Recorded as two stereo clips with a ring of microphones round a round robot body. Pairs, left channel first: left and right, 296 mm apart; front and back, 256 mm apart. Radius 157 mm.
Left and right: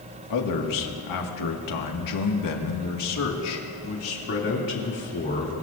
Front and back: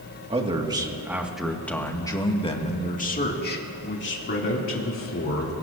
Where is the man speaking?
115° left, 2 m; by 5.5 s 30° left, 3.5 m.